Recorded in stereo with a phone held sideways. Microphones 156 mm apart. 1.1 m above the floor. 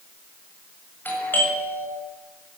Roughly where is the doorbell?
Centre.